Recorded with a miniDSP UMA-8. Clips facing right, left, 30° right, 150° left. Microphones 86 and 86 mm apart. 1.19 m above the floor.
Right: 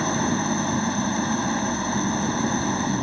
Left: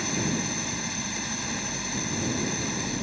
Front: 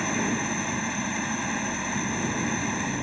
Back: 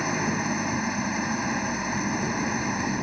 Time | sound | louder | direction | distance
0.0 | an engine running | right 6 dB, back 1 dB | 130° right | ?